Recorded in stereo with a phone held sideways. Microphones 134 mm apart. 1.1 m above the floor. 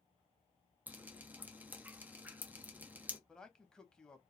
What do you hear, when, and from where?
0.9 s dripping: 15° right (ahead or behind), 0.5 m
3.3 s a man speaking: 5° left (ahead or behind), 0.6 m